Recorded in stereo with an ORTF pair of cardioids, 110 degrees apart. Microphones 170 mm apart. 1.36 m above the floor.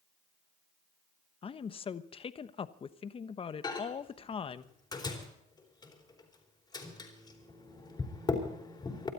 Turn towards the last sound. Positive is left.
turn(degrees=25)